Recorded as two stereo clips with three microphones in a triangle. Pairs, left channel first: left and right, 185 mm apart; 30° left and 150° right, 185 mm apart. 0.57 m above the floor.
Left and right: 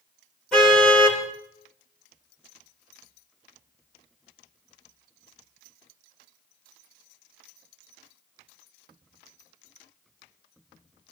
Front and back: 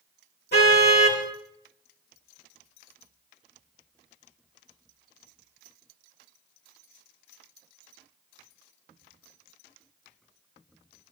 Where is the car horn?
Straight ahead, 7.5 m.